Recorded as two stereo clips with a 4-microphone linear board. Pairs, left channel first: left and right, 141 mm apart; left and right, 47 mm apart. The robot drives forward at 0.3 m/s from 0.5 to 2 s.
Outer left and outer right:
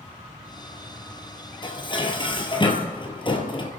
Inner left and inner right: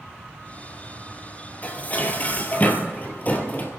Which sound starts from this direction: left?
Dishes clattering, at 1.6 s.